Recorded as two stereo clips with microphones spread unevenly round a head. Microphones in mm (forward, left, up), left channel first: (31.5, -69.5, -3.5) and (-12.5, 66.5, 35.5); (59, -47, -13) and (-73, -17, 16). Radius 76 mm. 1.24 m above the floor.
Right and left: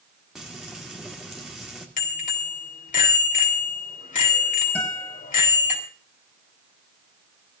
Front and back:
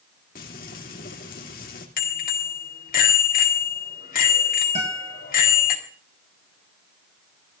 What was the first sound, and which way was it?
Frying, 20° left.